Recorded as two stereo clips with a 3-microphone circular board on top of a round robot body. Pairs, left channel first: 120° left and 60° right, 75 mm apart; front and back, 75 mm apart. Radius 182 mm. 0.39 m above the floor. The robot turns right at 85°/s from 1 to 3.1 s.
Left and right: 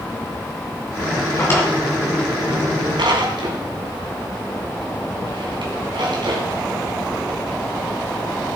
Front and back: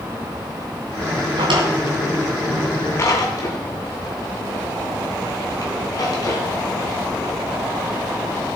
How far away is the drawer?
About 3 m.